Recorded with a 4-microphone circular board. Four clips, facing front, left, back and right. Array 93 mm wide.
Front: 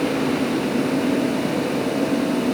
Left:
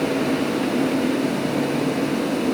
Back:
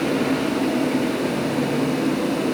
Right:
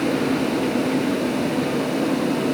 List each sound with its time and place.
Only background noise.